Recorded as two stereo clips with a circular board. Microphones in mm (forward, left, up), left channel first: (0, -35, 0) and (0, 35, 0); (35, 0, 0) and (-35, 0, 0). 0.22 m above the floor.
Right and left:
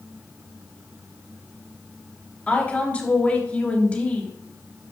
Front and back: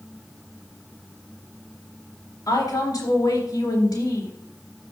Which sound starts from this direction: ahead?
A woman speaking, at 2.5 s.